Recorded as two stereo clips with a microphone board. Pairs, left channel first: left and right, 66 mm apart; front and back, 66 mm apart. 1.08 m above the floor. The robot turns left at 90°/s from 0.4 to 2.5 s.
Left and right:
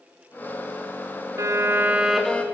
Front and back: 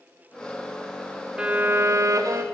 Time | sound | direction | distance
1.4 | a violin | 105° right | 1.2 m